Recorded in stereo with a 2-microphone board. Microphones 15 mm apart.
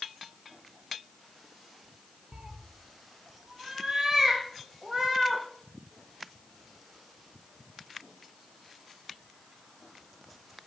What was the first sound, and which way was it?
A cat meowing, 75° right (ahead or behind).